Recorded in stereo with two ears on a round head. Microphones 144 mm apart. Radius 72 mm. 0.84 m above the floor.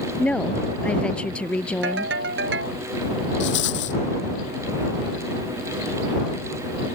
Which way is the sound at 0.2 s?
5° left (ahead or behind).